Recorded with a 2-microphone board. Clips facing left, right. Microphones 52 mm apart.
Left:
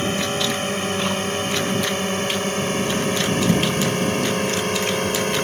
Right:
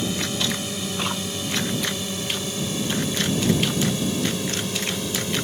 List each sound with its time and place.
0.0 s a drone: 45° left (ahead or behind); by 5.5 s 50° left (ahead or behind)